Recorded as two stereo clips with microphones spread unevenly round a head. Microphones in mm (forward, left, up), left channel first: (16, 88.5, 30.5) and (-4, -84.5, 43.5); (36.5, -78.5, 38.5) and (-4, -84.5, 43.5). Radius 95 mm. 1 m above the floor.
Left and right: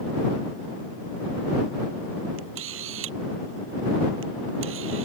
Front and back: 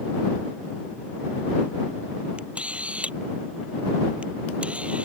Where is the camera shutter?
115° right.